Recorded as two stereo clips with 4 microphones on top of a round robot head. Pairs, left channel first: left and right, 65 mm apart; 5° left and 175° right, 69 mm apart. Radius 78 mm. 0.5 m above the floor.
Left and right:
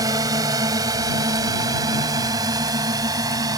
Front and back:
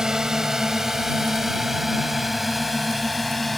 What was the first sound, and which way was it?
A drone, 95° right.